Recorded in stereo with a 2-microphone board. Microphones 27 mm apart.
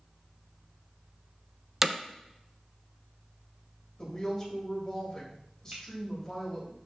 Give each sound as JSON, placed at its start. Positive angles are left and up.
{"t": 1.8, "sound": "hammering", "side_deg": -20, "distance_m": 0.6}
{"t": 4.0, "sound": "a woman speaking", "side_deg": 30, "distance_m": 3.5}
{"t": 5.7, "sound": "a finger snap", "side_deg": -70, "distance_m": 2.0}